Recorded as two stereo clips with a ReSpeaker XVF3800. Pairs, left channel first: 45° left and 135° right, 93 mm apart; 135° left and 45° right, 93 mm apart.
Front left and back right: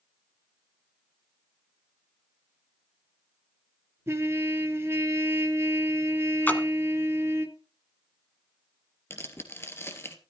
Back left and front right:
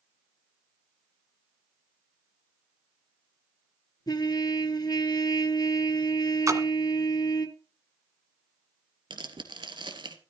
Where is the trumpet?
170° left, 2.5 m.